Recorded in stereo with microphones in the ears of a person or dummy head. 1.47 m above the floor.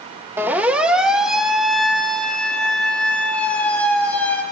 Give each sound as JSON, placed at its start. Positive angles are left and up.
{"t": 0.4, "sound": "a siren", "side_deg": -15, "distance_m": 2.5}